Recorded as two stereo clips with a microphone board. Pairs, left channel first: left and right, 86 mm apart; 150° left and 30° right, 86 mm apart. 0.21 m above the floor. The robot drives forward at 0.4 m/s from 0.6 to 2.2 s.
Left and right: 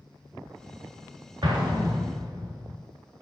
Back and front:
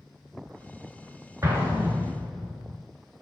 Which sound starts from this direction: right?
An explosion, at 1.4 s.